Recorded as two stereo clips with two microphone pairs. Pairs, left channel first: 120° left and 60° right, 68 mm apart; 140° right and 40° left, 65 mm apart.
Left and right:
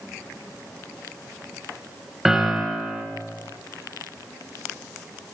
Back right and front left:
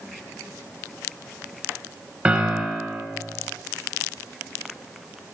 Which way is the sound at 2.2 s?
5° left.